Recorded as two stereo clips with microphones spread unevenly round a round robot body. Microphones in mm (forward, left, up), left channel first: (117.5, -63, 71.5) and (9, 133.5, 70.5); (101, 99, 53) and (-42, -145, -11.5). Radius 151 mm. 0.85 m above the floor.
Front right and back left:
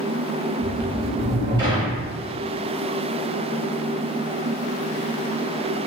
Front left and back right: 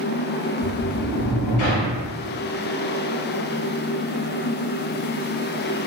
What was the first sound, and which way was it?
A sliding door, 55° left.